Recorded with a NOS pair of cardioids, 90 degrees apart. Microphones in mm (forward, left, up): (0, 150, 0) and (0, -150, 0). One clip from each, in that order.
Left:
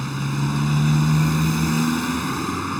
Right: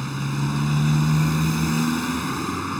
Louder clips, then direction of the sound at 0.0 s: Left 1 dB; 10° left.